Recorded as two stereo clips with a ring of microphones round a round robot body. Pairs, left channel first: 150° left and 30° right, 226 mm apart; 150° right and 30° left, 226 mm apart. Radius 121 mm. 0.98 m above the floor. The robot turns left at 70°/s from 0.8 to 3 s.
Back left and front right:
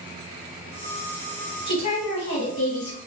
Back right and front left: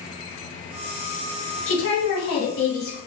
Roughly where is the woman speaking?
Behind right.